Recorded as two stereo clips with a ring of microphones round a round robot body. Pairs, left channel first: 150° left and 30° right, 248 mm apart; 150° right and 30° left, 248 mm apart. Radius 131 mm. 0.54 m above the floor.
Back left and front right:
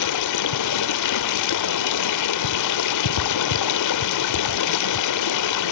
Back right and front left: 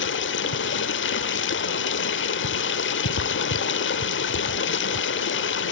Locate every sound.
0.0 s running water: 165° left, 1.1 m